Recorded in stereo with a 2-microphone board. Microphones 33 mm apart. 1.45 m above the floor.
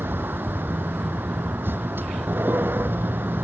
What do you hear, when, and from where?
0.0 s a vehicle: 75° right (ahead or behind)